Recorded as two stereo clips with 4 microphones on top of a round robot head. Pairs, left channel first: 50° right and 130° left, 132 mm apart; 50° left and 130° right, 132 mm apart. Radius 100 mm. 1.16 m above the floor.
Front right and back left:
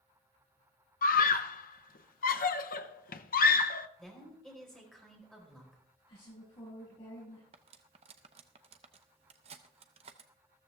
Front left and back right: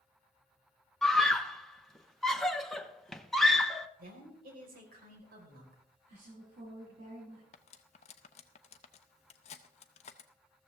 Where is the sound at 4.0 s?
135° right, 4.5 m.